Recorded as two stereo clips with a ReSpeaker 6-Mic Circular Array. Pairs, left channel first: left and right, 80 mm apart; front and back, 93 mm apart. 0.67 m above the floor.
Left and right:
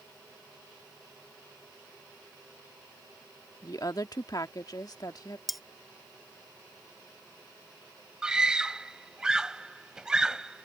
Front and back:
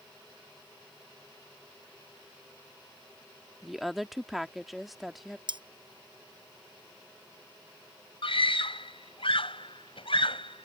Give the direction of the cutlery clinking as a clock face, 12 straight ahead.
6 o'clock.